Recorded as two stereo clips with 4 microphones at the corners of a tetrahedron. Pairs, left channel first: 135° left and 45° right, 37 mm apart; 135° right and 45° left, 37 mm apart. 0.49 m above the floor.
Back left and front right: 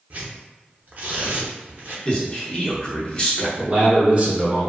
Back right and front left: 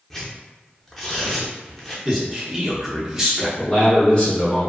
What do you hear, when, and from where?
0.1 s tearing paper: 50° right, 0.7 m
2.0 s a man speaking: 110° left, 0.7 m
3.6 s a man speaking: 85° right, 1.0 m